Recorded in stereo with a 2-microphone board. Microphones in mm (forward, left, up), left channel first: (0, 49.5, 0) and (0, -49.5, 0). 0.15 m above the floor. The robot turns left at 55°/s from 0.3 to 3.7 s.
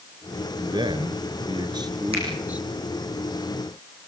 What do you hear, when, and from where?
0.6 s a man speaking: 55° right, 2.5 m; by 2.7 s 170° right, 2.5 m
2.1 s a finger snap: 80° right, 8 m